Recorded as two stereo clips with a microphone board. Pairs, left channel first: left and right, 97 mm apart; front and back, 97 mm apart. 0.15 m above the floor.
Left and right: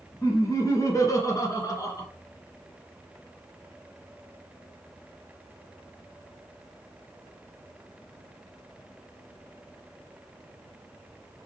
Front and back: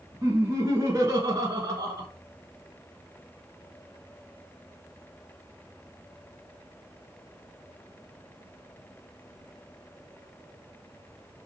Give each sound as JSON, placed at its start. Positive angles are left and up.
{"t": 0.2, "sound": "laughter", "azimuth_deg": 130, "distance_m": 2.0}